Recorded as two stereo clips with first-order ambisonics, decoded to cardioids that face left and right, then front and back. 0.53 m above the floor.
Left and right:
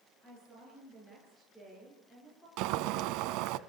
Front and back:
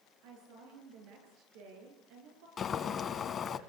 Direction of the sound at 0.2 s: 170° left.